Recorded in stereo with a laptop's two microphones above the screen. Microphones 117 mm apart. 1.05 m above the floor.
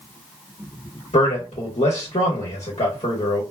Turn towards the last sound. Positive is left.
turn(degrees=70)  # may be behind; listen again after turning